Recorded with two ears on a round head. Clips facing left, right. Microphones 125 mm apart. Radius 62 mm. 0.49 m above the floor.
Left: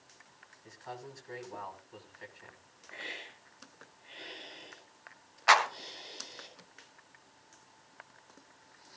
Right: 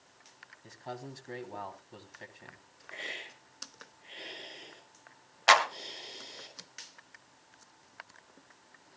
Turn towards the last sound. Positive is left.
turn(degrees=-35)  # may be behind; listen again after turning